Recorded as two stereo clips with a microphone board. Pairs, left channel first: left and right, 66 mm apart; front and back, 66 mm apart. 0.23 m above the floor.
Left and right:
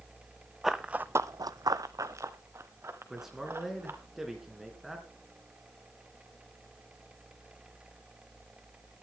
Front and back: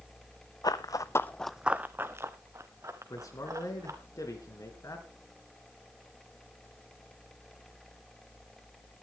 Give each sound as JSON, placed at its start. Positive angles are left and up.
{"t": 0.6, "sound": "running footsteps", "azimuth_deg": -5, "distance_m": 0.9}
{"t": 3.1, "sound": "a man speaking", "azimuth_deg": -10, "distance_m": 3.5}